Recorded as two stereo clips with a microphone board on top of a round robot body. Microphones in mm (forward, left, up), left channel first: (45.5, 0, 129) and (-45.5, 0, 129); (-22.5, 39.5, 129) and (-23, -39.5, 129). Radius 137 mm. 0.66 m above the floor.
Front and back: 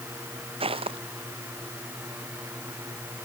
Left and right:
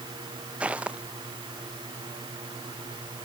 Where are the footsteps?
165° right.